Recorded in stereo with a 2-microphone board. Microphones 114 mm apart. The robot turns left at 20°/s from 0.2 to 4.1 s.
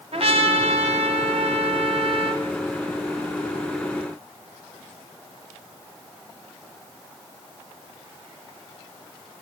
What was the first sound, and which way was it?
A trumpet, 75° right.